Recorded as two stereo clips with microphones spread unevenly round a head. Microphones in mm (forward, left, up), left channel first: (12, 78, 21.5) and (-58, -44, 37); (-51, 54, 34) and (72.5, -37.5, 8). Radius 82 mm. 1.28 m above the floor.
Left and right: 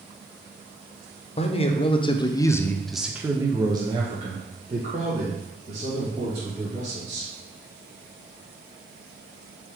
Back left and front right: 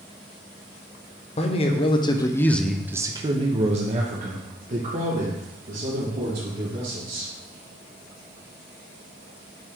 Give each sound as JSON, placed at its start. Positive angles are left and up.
{"t": 1.4, "sound": "a man speaking", "azimuth_deg": 95, "distance_m": 1.0}